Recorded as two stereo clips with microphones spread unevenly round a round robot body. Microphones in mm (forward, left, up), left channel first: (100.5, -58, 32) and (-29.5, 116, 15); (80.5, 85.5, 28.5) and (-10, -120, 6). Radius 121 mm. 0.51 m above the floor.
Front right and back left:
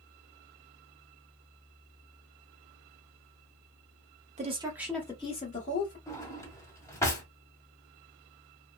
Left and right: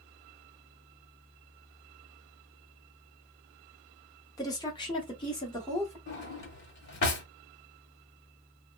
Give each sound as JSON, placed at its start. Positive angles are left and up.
{"t": 4.4, "sound": "a woman speaking", "azimuth_deg": 140, "distance_m": 0.8}
{"t": 6.1, "sound": "a drawer", "azimuth_deg": 25, "distance_m": 0.9}